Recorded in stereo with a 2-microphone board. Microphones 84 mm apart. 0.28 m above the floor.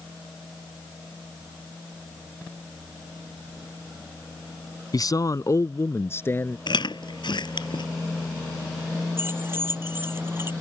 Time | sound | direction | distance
4.9 | a man speaking | 55° left (ahead or behind) | ?
6.7 | chewing | 70° left (ahead or behind) | ?
9.2 | keys jangling | 30° right (ahead or behind) | ?